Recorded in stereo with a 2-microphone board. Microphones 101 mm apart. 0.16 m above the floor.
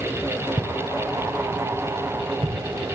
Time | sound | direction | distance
0.6 | footsteps | 60° right (ahead or behind) | 1.8 m